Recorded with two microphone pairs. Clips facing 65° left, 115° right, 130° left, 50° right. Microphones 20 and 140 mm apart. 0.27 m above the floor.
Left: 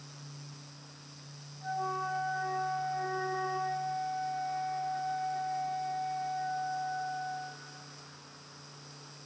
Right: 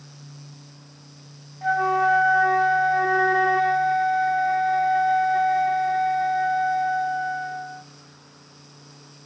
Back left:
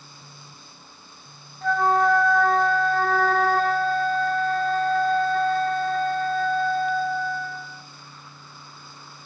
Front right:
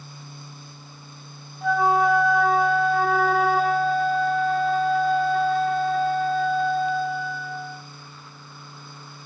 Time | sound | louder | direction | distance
1.6 | a flute | right 14 dB, front right 1 dB | 135° right | 0.5 m